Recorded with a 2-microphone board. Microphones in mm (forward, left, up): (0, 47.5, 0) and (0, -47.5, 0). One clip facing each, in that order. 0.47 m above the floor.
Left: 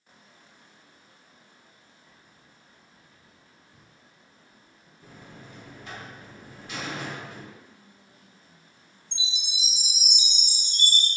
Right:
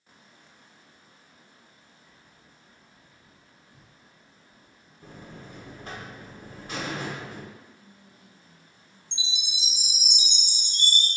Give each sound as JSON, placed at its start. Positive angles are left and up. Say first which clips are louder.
{"t": 2.1, "sound": "keys jangling", "louder": "even", "side_deg": 25, "distance_m": 0.6}
{"t": 5.0, "sound": "a buzzer", "louder": "right 3 dB", "side_deg": -40, "distance_m": 0.7}
{"t": 7.6, "sound": "whispering", "louder": "right 1 dB", "side_deg": 5, "distance_m": 1.5}
{"t": 9.1, "sound": "a chime", "louder": "even", "side_deg": -20, "distance_m": 0.9}